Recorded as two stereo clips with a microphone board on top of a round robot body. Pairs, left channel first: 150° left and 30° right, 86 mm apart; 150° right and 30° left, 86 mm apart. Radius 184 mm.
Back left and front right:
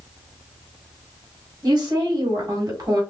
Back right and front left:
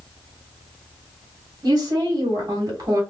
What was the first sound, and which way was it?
A woman speaking, 5° left.